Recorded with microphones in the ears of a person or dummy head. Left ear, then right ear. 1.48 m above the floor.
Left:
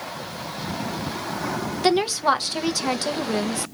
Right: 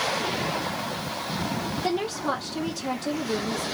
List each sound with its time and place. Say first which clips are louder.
1.8 s a woman speaking: left 9 dB; 65° left (ahead or behind), 0.9 m